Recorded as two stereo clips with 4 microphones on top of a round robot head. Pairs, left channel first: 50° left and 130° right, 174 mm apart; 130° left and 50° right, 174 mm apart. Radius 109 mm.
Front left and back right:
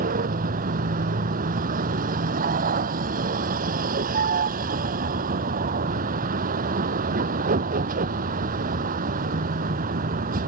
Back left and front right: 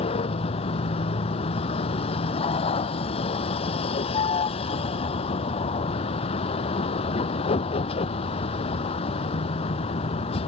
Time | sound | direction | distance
0.0 | a vehicle | 170° right | ?